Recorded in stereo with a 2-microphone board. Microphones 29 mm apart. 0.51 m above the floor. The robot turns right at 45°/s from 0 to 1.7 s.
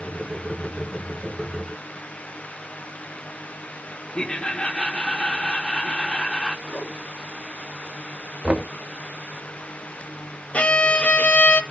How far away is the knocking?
About 0.5 m.